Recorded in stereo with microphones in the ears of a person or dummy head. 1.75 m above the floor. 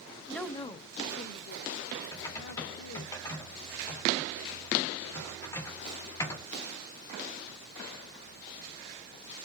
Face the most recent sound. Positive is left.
turn(degrees=20)  # may be behind; listen again after turning